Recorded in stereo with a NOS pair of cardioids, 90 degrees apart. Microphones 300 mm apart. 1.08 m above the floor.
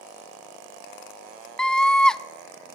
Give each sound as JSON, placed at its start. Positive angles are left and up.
{"t": 1.6, "sound": "a scream", "azimuth_deg": 0, "distance_m": 0.8}